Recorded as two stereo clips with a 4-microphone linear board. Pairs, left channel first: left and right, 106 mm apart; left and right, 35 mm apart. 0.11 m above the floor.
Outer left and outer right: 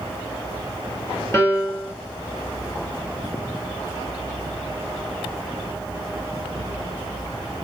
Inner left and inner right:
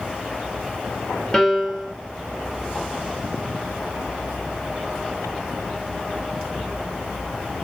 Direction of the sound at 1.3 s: 25° left (ahead or behind).